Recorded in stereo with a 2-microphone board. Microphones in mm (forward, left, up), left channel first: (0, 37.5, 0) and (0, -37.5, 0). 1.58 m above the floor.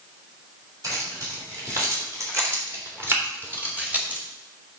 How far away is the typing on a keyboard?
I don't hear typing on a keyboard.